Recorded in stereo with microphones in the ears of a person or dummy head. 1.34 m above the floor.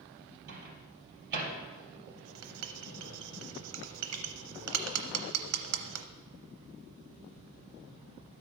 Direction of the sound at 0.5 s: 55° right (ahead or behind).